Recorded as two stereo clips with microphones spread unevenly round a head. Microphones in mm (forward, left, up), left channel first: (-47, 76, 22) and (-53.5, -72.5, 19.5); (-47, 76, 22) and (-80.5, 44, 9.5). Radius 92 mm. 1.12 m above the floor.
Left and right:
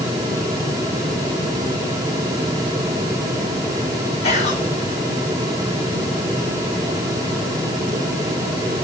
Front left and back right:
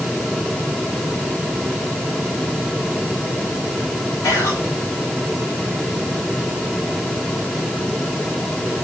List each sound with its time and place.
4.2 s whispering: 35° left, 1.9 m